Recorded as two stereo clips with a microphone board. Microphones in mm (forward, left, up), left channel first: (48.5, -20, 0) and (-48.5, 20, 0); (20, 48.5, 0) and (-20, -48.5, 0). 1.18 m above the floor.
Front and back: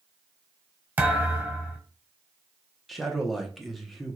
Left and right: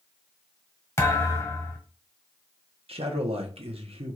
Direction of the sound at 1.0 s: 100° left.